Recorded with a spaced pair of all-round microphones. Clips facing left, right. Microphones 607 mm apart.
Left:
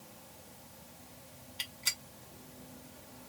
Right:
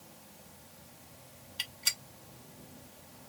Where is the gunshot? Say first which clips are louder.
Left 1 dB; 40° right (ahead or behind), 1.0 m.